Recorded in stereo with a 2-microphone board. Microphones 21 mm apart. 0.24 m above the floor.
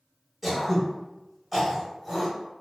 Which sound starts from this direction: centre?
Throat clearing, at 0.4 s.